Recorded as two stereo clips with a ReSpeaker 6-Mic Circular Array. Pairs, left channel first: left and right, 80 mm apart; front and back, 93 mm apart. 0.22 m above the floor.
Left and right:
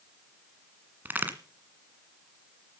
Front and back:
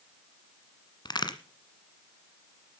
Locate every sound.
1.1 s a crack: 25° right, 1.6 m